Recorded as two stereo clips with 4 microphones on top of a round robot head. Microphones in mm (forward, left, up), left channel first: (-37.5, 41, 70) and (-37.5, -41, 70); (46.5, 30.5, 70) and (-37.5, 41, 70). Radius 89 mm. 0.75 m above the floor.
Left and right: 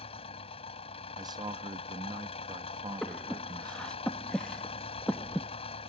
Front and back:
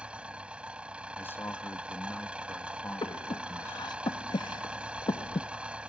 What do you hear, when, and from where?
0.0 s an engine running: 95° left
1.2 s a man speaking: 70° right
3.0 s breathing: 10° left